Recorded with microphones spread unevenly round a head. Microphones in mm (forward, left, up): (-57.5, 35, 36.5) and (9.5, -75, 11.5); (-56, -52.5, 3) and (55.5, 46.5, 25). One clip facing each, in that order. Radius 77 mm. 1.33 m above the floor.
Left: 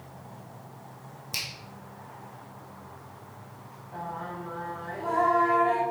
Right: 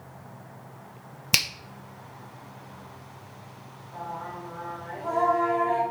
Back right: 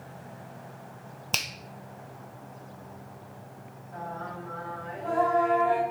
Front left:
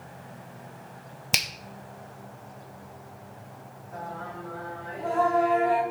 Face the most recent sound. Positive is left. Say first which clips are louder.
# even, even
turn(degrees=80)